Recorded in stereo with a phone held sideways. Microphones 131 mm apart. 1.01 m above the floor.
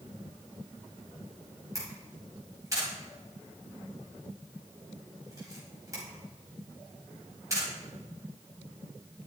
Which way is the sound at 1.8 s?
25° right (ahead or behind).